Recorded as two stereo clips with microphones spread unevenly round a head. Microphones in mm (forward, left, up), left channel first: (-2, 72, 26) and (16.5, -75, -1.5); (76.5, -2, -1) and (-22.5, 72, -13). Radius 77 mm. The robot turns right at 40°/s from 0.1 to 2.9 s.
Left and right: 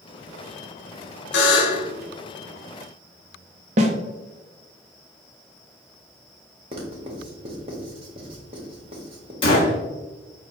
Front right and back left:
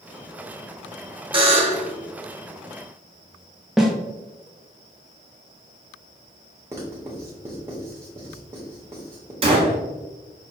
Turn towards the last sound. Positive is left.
turn(degrees=120)